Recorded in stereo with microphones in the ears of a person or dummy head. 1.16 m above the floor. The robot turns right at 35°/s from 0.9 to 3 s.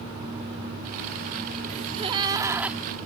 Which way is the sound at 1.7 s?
40° right.